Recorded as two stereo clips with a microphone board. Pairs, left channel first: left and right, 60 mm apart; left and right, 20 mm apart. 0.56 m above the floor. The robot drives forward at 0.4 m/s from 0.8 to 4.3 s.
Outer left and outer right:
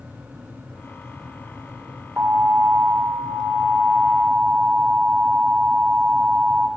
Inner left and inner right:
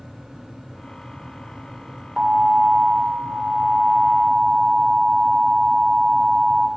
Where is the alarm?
40° right (ahead or behind), 2.5 m; by 6.7 s 30° right (ahead or behind), 3.5 m.